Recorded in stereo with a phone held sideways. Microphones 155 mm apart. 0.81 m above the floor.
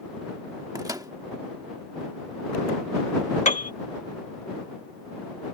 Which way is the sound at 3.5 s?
50° left (ahead or behind).